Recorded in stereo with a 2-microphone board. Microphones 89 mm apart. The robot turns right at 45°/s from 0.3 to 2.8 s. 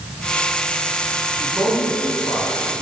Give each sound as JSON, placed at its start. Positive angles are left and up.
{"t": 1.4, "sound": "a man speaking", "azimuth_deg": -5, "distance_m": 5.0}